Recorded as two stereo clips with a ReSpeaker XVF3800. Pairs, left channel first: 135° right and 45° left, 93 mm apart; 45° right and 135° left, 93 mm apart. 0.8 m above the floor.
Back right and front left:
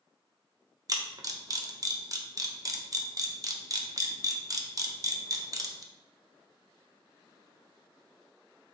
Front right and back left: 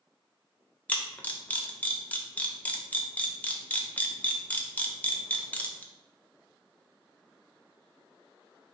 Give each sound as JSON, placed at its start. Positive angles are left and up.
{"t": 0.9, "sound": "a camera shutter", "azimuth_deg": 20, "distance_m": 0.6}